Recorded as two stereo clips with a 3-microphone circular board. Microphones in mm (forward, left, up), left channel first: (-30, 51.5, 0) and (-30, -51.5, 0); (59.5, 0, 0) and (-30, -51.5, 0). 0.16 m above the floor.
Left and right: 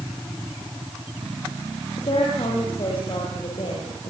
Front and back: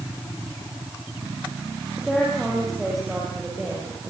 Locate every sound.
2.0 s a woman speaking: 120° left, 6.5 m